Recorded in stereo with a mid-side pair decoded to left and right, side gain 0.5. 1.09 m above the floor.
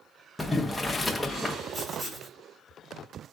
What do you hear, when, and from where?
0.4 s boiling: 10° left, 1.0 m
1.7 s writing: 15° right, 2 m